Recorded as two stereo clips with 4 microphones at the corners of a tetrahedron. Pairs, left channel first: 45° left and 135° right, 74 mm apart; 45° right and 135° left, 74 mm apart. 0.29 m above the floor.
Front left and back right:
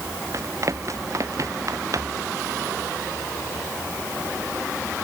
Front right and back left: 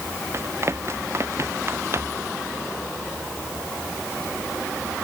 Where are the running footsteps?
175° right.